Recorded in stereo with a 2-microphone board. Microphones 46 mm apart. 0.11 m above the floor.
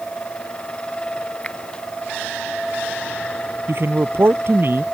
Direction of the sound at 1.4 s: 25° left (ahead or behind).